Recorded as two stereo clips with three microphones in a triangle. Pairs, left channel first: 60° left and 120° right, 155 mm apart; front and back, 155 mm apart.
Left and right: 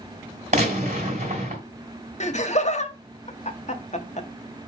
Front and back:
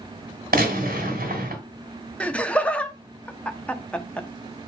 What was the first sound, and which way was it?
A gunshot, 160° right.